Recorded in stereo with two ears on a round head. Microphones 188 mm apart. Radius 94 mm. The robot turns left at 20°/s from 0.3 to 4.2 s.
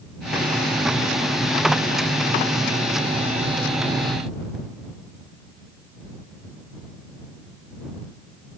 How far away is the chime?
I don't hear a chime.